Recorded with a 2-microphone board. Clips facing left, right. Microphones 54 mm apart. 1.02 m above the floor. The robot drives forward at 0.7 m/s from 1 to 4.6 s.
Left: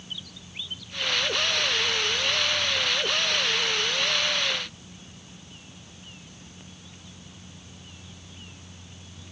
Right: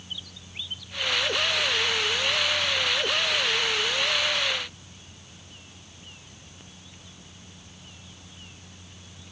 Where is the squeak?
I don't hear a squeak.